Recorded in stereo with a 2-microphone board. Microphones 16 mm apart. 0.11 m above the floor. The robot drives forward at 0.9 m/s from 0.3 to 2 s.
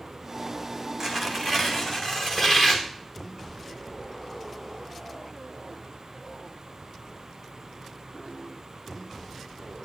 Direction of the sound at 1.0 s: 40° right (ahead or behind).